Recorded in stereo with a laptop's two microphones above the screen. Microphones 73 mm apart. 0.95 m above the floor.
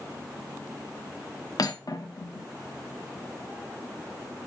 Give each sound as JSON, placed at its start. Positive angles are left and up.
{"t": 1.6, "sound": "cutlery clinking", "side_deg": 60, "distance_m": 1.0}